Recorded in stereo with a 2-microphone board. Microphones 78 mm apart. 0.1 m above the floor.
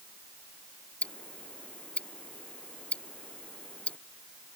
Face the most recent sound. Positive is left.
turn(degrees=15)  # may be behind; listen again after turning